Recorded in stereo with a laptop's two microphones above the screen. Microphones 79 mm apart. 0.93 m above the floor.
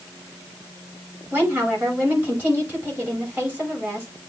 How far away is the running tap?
I don't hear a running tap.